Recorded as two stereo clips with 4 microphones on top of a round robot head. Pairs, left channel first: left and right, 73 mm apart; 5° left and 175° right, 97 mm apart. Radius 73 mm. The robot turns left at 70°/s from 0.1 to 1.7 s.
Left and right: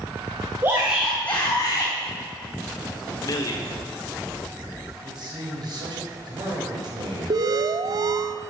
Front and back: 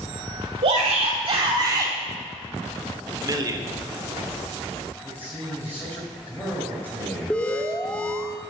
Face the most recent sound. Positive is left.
turn(degrees=-75)